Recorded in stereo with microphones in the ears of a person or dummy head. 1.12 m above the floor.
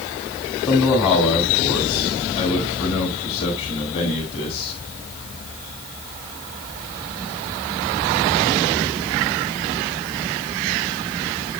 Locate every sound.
0.7 s a man speaking: 35° left (ahead or behind), 6 m